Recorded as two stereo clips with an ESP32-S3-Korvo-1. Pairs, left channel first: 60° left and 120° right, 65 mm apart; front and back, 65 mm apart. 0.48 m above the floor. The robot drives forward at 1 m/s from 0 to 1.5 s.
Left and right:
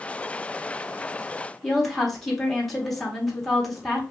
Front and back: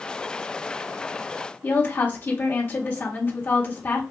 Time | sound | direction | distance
1.6 | a woman speaking | 25° right | 1.5 m